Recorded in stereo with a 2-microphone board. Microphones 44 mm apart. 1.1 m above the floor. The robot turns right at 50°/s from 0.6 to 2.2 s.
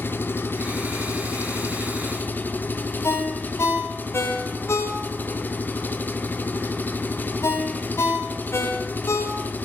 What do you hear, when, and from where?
0.0 s an engine running: 55° left, 1.7 m; by 9.7 s 135° left, 1.7 m
3.0 s a ringtone: 80° left, 3.5 m